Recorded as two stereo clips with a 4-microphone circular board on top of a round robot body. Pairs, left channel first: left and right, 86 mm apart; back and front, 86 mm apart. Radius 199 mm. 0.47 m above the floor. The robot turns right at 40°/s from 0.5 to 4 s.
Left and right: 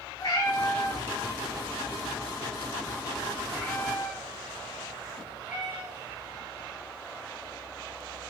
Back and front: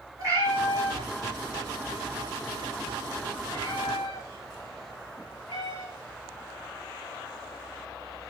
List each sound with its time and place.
0.2 s a cat meowing: 50° left, 7.5 m; by 6.3 s 170° right, 7.5 m